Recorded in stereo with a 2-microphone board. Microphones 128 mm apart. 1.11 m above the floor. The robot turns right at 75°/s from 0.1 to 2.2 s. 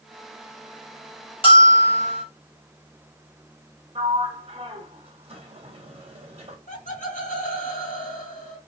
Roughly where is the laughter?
Left.